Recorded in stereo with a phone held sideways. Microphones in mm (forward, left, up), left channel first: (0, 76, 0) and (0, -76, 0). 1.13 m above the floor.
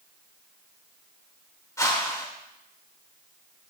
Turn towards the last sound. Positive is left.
turn(degrees=20)  # may be behind; listen again after turning